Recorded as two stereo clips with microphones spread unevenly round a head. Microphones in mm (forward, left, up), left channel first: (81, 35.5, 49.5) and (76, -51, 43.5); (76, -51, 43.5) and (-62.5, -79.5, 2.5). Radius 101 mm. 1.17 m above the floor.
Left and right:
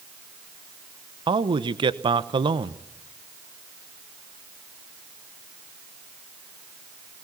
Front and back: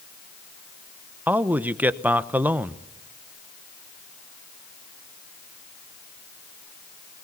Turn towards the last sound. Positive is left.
turn(degrees=-100)